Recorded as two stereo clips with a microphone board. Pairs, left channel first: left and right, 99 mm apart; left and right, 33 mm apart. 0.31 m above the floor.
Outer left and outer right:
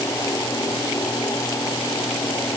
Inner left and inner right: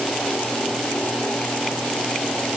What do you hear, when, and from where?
Only background noise.